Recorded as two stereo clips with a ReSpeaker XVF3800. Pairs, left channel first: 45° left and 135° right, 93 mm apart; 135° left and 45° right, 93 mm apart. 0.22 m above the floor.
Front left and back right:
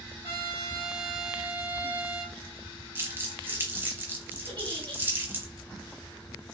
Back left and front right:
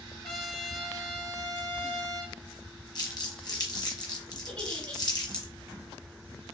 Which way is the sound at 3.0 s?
165° left.